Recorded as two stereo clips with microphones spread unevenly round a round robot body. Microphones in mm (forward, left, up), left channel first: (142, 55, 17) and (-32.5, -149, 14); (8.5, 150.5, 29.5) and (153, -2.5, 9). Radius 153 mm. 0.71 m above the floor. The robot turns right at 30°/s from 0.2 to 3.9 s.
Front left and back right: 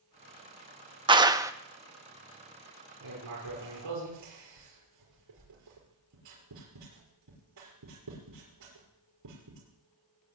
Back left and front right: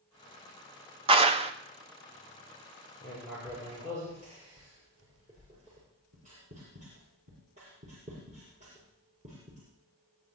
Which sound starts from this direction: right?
A clap, at 1.1 s.